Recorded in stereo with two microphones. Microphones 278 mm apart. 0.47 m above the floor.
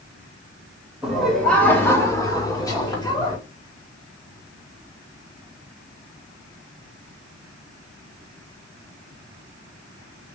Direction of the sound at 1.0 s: Centre (ahead or behind).